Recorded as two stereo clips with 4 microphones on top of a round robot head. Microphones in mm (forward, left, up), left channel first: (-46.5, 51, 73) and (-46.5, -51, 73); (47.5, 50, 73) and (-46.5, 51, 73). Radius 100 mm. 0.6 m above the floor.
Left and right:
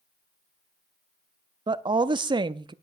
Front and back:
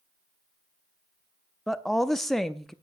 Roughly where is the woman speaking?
Right.